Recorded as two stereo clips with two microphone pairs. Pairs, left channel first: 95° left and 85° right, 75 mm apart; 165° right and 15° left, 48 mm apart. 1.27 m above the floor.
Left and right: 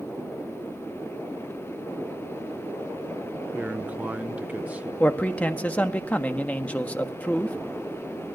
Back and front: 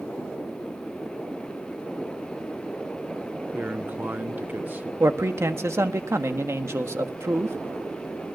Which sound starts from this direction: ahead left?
A man speaking, at 5.0 s.